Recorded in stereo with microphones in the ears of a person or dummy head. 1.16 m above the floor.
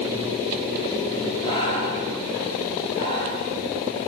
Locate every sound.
1.4 s breathing: 30° left (ahead or behind), 4 m